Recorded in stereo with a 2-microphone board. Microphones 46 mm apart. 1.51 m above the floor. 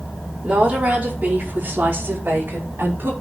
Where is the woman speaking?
25° right (ahead or behind), 5 m; by 3.1 s 50° right (ahead or behind), 5.5 m.